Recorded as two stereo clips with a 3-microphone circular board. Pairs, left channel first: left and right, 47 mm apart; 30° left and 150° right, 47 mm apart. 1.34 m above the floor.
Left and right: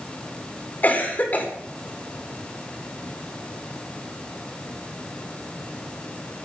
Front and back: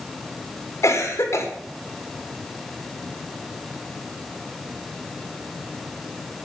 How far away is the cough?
About 3.5 m.